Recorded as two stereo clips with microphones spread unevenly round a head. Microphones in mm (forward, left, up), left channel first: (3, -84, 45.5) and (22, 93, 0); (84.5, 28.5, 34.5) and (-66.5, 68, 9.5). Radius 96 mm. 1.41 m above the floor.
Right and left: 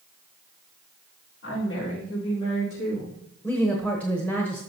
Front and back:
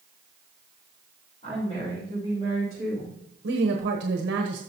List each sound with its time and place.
1.4 s a woman speaking: 75° right, 4.5 m; by 3.1 s 90° right, 5.5 m
3.4 s a woman speaking: straight behind, 1.1 m